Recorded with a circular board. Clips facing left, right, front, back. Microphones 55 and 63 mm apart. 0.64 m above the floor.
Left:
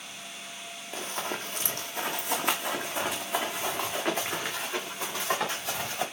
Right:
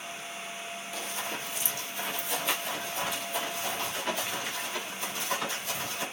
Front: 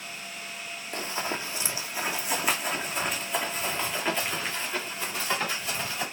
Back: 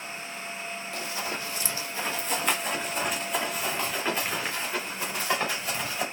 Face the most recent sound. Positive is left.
turn(degrees=105)